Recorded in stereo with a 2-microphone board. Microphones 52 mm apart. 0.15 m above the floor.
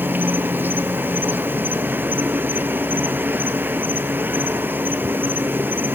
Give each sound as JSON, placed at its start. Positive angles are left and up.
{"t": 0.0, "sound": "an insect", "side_deg": -40, "distance_m": 0.9}